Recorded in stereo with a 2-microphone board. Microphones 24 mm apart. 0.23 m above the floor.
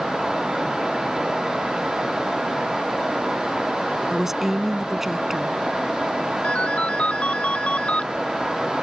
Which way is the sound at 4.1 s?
15° right (ahead or behind).